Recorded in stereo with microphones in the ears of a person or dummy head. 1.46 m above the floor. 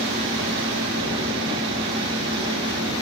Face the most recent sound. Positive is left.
turn(degrees=-25)  # may be behind; listen again after turning